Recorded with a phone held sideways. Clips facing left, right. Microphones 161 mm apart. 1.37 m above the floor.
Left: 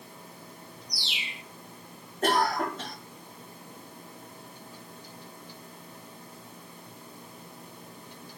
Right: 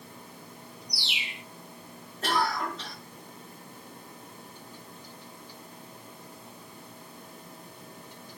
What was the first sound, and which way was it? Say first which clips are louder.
A bird: right 1 dB; 65° right (ahead or behind).